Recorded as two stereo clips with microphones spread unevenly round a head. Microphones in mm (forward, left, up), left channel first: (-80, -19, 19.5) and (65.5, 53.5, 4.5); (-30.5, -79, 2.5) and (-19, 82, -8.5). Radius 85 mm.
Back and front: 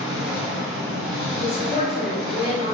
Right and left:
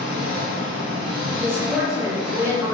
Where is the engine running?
105° left, 1.4 m.